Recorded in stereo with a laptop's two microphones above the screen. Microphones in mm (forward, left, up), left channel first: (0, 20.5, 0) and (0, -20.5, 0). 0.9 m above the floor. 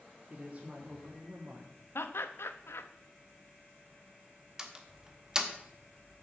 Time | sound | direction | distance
0.3 | a woman speaking | 35° right (ahead or behind) | 1.6 m
1.9 | laughter | 75° left (ahead or behind) | 0.8 m
4.6 | a door slam | 15° right (ahead or behind) | 0.7 m